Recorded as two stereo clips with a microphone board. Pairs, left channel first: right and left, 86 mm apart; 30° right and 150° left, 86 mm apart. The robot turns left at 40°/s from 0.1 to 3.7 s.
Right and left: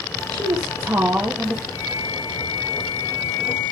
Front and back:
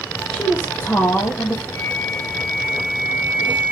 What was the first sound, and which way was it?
A woman speaking, 50° left.